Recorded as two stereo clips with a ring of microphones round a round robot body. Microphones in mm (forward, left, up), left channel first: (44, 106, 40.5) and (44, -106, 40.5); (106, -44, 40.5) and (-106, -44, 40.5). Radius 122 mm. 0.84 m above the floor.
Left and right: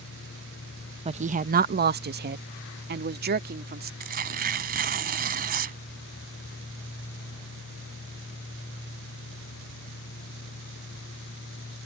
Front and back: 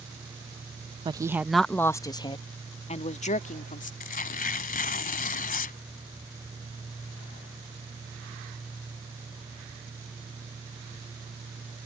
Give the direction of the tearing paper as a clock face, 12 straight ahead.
2 o'clock.